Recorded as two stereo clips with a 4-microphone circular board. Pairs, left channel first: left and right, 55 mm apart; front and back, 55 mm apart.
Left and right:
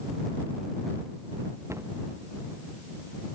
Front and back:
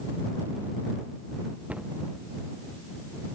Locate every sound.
1.7 s a cupboard door: 115° right